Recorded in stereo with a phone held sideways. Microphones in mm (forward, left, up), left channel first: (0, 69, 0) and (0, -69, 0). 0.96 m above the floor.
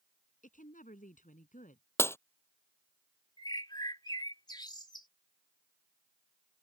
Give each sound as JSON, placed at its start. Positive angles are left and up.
{"t": 0.4, "sound": "a woman speaking", "side_deg": 75}
{"t": 2.0, "sound": "breaking glass", "side_deg": 15}
{"t": 3.4, "sound": "a bird", "side_deg": 30}